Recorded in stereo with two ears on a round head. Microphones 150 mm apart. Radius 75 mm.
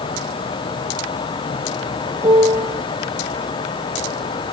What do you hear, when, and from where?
2.2 s a piano: 20° right (ahead or behind), 1.3 m